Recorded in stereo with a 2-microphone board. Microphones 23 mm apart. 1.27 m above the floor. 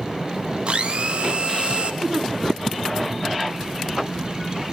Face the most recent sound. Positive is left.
turn(degrees=-20)  # may be behind; listen again after turning